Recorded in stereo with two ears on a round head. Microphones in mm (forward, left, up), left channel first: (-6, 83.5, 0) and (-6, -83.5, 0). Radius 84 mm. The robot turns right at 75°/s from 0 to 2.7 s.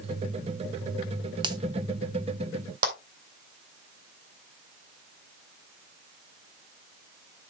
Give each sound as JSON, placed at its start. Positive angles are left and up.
{"t": 1.4, "sound": "a finger snap", "side_deg": -25, "distance_m": 0.9}
{"t": 2.8, "sound": "a clap", "side_deg": -50, "distance_m": 2.5}